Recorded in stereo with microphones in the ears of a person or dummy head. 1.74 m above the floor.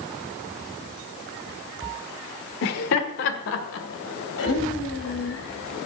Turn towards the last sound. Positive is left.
turn(degrees=70)  # may be behind; listen again after turning